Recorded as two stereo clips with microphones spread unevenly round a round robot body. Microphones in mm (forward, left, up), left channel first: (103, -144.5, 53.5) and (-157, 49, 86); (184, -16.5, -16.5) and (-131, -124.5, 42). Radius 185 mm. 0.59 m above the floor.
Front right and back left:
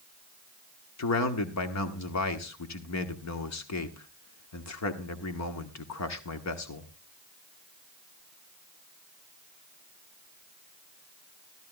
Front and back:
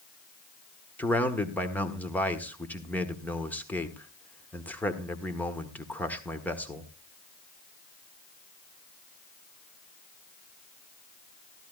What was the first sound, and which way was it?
A man speaking, 60° right.